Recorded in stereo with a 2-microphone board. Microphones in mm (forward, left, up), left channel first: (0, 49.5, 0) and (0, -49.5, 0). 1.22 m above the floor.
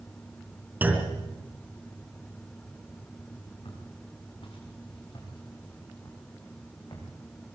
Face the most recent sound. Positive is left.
turn(degrees=45)  # may be behind; listen again after turning